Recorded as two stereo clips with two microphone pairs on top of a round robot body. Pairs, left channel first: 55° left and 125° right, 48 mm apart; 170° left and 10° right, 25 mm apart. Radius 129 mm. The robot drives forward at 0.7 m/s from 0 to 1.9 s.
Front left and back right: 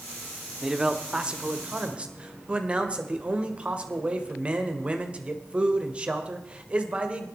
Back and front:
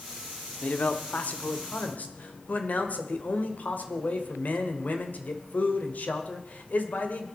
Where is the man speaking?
Straight behind, 1.1 m.